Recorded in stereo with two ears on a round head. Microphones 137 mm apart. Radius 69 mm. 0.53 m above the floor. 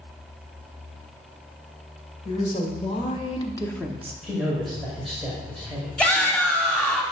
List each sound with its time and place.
2.2 s a woman speaking: 45° left (ahead or behind), 2 m; by 4.1 s 20° right (ahead or behind), 0.8 m
4.2 s a man speaking: centre (ahead or behind), 2.0 m
6.0 s a shout: 10° left (ahead or behind), 1.3 m